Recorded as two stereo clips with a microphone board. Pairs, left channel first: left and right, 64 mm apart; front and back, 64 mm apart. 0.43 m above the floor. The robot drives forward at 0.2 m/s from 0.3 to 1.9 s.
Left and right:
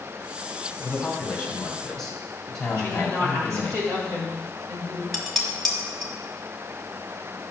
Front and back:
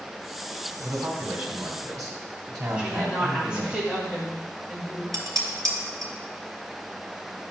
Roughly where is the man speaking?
Behind.